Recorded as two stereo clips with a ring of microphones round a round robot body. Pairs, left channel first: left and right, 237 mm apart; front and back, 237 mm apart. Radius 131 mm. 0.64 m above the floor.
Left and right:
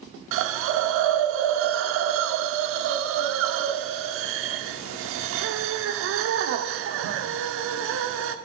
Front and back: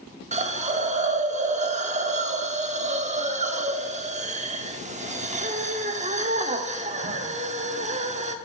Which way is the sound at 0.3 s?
120° right.